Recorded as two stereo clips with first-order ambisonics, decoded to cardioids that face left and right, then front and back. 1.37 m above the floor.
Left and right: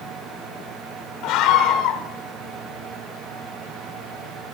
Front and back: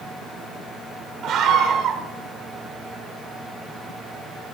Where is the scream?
120° left, 1.8 m.